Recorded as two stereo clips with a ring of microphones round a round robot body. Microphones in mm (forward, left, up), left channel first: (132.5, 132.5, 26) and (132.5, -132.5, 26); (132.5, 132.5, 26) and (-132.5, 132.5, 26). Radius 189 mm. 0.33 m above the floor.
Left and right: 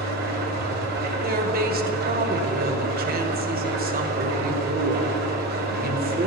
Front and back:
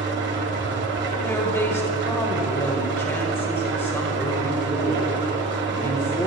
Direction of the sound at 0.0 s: 140° right.